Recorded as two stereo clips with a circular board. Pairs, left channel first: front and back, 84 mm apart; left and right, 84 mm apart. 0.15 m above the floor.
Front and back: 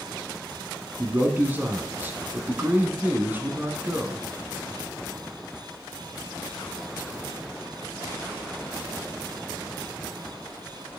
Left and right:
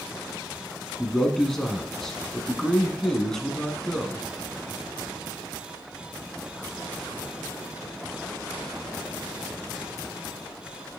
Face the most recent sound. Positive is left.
turn(degrees=165)